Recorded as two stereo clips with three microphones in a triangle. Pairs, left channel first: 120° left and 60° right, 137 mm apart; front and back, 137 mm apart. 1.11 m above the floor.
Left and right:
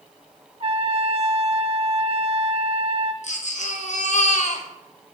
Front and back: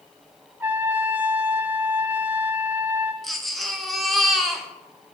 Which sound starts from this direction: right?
A trumpet, at 0.6 s.